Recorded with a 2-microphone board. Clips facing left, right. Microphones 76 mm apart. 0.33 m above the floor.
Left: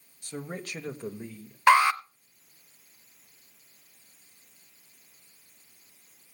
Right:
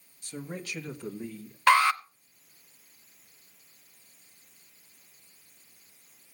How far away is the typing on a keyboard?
No typing on a keyboard in this recording.